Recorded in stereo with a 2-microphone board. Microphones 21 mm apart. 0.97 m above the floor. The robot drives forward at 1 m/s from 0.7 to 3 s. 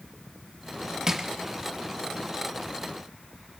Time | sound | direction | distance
1.1 | crushing | 25° right (ahead or behind) | 0.6 m